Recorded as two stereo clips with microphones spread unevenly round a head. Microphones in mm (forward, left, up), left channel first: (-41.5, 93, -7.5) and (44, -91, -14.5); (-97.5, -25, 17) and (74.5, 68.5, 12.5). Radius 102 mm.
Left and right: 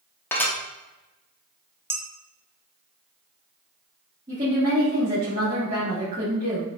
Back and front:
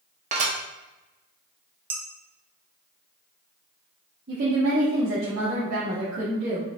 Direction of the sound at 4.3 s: 5° right.